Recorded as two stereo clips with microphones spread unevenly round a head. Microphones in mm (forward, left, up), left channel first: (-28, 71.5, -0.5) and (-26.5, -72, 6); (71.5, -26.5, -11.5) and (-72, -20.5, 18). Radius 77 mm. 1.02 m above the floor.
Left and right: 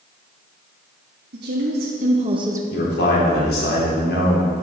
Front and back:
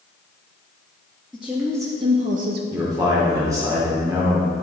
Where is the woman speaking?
90° right, 1.7 m; by 2.6 s 160° right, 1.2 m.